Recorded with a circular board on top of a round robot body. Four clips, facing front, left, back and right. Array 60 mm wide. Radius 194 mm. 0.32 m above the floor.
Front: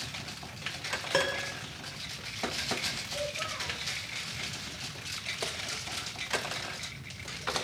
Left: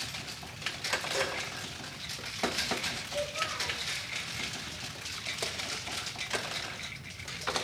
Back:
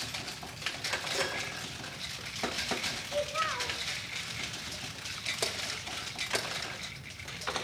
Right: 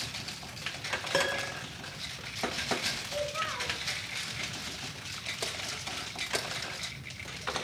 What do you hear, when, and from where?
1.1 s a piano: 35° right, 1.7 m
3.0 s a child speaking: 155° right, 3.5 m